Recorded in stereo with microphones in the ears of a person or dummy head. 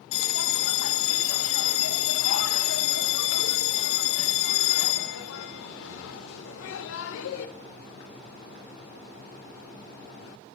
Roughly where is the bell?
Left.